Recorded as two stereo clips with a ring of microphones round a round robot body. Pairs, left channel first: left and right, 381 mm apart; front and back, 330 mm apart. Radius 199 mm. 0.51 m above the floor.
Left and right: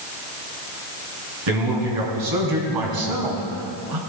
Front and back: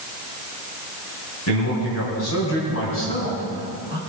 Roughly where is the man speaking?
Ahead right.